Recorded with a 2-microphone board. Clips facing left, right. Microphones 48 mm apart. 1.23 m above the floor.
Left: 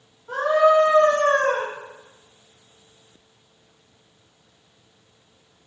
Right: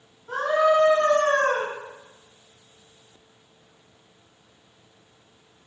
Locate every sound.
0.3 s a scream: 5° left (ahead or behind), 1.8 m